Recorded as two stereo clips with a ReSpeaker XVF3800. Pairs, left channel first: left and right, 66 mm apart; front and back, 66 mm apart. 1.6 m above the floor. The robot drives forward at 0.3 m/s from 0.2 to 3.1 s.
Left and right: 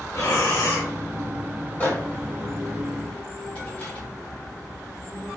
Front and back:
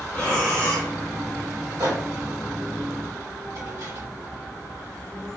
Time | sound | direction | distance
0.1 | breathing | 60° left | 1.6 m
1.8 | a microwave | 150° left | 1.5 m